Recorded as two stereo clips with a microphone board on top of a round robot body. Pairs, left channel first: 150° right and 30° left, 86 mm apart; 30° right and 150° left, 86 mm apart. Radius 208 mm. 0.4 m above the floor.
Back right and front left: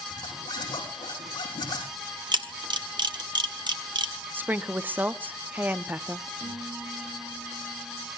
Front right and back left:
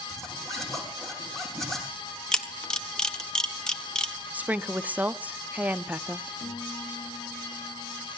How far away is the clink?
I don't hear a clink.